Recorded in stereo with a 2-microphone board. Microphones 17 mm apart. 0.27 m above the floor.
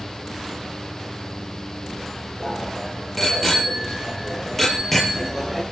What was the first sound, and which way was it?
A bicycle bell, 15° left (ahead or behind).